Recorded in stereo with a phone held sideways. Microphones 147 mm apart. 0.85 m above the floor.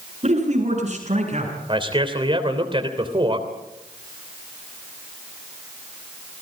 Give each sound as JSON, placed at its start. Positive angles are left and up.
{"t": 0.2, "sound": "a man speaking", "side_deg": -50, "distance_m": 8.5}
{"t": 1.7, "sound": "a man speaking", "side_deg": -35, "distance_m": 3.0}